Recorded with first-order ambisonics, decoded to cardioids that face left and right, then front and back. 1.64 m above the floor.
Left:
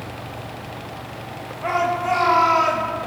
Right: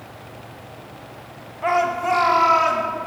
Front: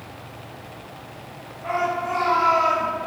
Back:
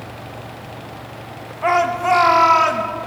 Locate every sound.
1.6 s a shout: 165° right, 1.7 m; by 2.8 s 175° right, 2.5 m